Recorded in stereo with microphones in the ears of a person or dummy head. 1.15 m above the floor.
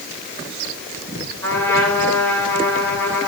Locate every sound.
1.4 s a trumpet: 15° left (ahead or behind), 4 m